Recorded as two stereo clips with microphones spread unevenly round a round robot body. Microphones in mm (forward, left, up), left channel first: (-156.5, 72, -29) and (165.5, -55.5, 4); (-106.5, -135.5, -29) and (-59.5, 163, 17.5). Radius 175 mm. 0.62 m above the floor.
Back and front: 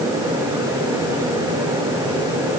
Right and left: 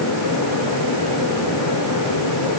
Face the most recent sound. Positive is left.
No sound to turn to.